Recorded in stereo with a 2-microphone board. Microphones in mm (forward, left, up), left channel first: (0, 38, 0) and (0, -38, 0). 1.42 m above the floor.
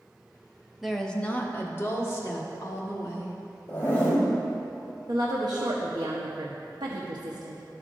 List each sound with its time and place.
0.8 s a woman speaking: 5° right (ahead or behind), 0.7 m; by 3.4 s 50° left (ahead or behind), 2.5 m
3.7 s a zipper: 25° left (ahead or behind), 3 m
5.1 s a woman speaking: 80° right, 0.9 m